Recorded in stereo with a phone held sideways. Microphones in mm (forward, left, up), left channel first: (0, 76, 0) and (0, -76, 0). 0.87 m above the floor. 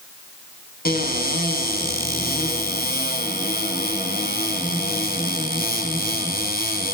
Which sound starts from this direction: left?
A cupboard door, at 0.8 s.